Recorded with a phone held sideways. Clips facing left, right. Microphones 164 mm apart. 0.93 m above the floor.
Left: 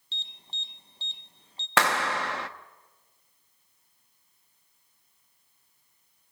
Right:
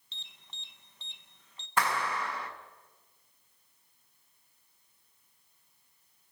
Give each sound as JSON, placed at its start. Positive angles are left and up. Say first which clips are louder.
{"t": 0.1, "sound": "an alarm", "louder": "left 7 dB", "side_deg": 30, "distance_m": 1.2}
{"t": 1.8, "sound": "a clap", "louder": "left 4 dB", "side_deg": 80, "distance_m": 1.0}